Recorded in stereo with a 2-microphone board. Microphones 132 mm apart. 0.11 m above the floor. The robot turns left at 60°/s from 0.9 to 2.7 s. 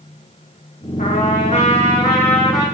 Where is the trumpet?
95° left, 7 m; by 2.6 s 5° right, 7 m.